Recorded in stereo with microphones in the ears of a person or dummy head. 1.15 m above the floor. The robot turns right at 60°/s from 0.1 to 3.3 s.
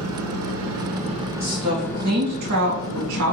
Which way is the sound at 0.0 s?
95° right.